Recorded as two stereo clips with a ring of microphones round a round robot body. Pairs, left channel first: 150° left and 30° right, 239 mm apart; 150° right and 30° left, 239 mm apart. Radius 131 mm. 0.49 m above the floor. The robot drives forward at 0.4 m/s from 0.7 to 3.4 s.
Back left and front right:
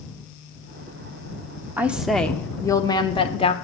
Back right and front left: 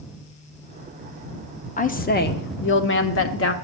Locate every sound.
1.8 s a woman speaking: 110° right, 0.9 m; by 3.5 s 145° right, 1.2 m